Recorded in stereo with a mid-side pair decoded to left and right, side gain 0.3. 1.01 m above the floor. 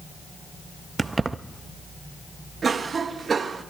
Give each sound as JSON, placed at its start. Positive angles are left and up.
{"t": 1.0, "sound": "keys jangling", "azimuth_deg": -35, "distance_m": 0.6}
{"t": 2.6, "sound": "a cough", "azimuth_deg": -60, "distance_m": 1.0}